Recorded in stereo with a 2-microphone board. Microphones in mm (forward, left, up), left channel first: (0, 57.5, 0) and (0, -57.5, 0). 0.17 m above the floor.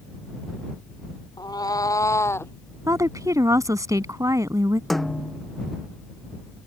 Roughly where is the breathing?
I don't hear breathing.